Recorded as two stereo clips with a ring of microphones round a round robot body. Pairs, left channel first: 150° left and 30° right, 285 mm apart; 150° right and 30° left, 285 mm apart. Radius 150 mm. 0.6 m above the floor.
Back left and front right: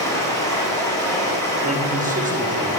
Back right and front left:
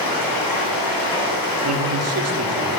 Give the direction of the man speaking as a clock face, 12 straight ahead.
11 o'clock.